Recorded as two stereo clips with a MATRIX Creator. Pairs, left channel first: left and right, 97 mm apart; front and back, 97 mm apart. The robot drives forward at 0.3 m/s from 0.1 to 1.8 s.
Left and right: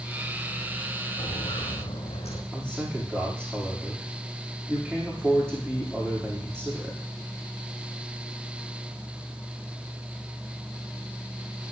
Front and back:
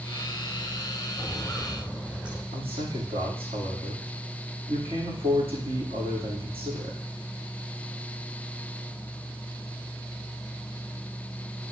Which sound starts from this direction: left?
Footsteps, at 1.2 s.